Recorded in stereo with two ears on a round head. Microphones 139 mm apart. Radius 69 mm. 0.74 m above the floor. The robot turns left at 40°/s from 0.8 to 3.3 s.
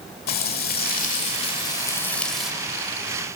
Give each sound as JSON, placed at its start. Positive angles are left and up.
{"t": 0.3, "sound": "frying", "azimuth_deg": 65, "distance_m": 1.7}